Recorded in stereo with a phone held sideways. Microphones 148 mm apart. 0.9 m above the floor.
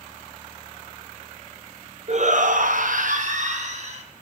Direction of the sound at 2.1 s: 50° right (ahead or behind).